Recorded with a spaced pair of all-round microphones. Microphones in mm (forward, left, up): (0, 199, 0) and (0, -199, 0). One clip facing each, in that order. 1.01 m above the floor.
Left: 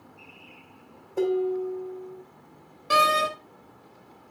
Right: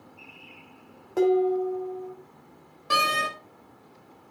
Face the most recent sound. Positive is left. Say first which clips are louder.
# left 5 dB
turn(degrees=-10)  # may be behind; listen again after turning